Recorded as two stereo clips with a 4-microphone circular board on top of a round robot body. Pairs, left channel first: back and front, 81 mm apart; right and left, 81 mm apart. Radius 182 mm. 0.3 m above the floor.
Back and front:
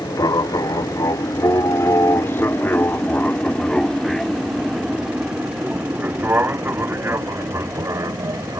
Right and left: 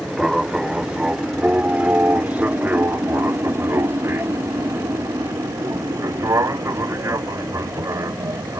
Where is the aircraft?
175° left; by 8.6 s 45° left.